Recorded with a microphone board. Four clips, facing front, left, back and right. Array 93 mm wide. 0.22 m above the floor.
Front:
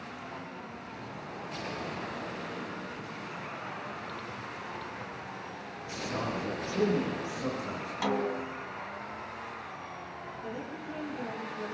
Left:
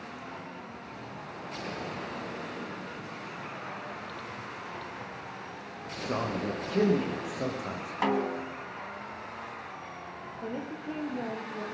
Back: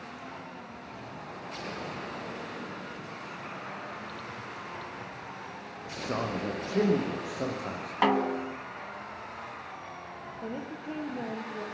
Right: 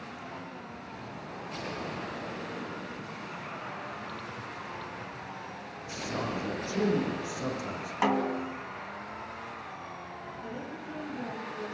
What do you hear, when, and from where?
5.8 s a man speaking: 140° left, 10 m; by 7.9 s 150° left, 10.5 m
8.0 s a snare drum: 165° right, 1.6 m
10.4 s a woman speaking: 135° left, 7 m